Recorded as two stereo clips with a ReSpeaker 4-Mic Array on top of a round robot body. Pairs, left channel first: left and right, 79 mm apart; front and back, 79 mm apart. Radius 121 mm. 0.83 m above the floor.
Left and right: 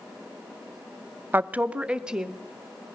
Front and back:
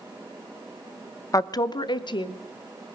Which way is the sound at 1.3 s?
30° right.